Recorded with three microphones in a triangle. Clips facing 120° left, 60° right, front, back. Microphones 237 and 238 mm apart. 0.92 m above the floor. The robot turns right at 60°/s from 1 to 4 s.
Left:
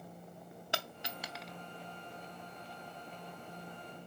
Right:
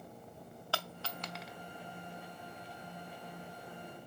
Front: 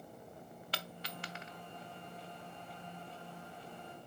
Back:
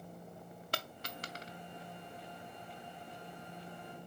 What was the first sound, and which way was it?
A dropped coin, 175° right.